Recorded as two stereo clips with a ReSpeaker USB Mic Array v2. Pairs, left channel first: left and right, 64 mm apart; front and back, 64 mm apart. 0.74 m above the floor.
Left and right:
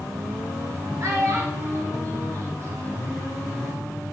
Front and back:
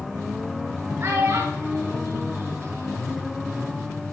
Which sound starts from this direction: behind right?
A child speaking, at 1.0 s.